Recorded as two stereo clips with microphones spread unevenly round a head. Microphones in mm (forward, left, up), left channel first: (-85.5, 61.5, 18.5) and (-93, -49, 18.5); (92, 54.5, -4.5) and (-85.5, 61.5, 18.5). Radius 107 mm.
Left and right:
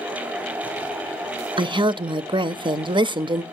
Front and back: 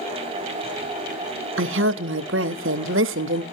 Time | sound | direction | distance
1.6 | a woman speaking | 145° right | 0.6 m